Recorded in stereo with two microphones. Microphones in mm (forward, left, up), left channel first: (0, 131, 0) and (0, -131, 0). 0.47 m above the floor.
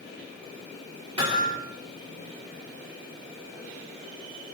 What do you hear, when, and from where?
1.2 s hammering: 70° right (ahead or behind), 9 m